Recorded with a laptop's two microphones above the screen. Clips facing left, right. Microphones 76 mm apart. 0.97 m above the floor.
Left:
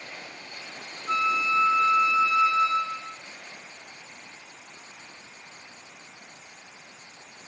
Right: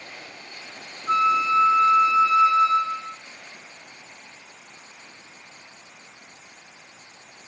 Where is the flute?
35° right (ahead or behind), 1.8 m.